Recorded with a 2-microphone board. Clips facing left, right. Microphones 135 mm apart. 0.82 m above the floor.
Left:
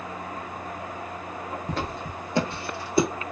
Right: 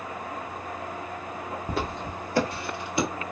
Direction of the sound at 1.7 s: 10° right (ahead or behind).